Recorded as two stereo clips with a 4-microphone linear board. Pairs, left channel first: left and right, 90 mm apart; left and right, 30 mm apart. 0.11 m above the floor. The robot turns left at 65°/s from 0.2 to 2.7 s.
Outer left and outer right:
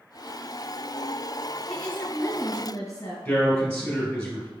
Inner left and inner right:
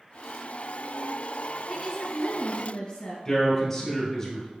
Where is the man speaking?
15° left (ahead or behind), 1.9 m.